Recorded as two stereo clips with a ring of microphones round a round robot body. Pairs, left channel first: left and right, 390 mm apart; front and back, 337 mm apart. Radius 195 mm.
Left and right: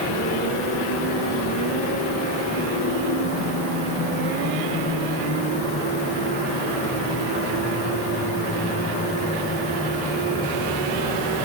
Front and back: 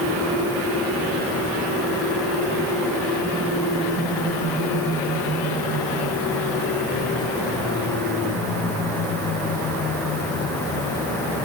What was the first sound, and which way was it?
Only background noise.